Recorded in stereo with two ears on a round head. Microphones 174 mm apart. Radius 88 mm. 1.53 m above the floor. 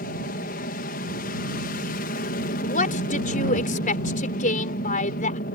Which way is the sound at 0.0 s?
45° left (ahead or behind).